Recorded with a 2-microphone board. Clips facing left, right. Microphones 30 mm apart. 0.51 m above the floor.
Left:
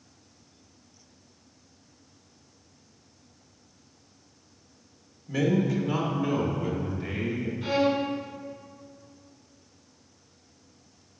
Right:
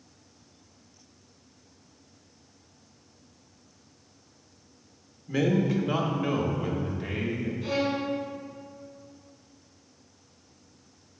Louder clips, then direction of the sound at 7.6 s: Left 4 dB; 35° left (ahead or behind).